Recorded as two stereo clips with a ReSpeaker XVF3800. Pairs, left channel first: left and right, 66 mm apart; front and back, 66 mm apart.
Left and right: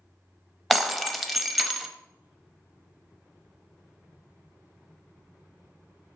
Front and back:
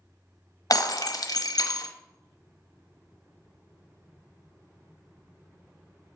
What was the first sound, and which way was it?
Breaking glass, 5° left.